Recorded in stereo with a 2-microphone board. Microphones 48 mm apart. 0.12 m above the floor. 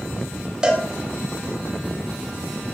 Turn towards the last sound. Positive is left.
turn(degrees=-15)  # may be behind; listen again after turning